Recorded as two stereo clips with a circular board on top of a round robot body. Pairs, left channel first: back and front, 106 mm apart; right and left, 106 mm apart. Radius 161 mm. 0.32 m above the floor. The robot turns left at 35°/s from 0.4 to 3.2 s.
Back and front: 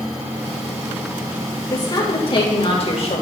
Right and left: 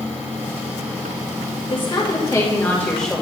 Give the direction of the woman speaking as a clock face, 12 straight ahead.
4 o'clock.